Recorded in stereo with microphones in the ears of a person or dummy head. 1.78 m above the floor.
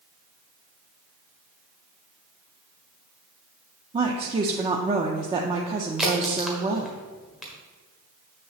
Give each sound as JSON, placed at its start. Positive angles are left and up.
{"t": 3.9, "sound": "a woman speaking", "side_deg": -30, "distance_m": 0.5}
{"t": 6.0, "sound": "a crack", "side_deg": -5, "distance_m": 1.3}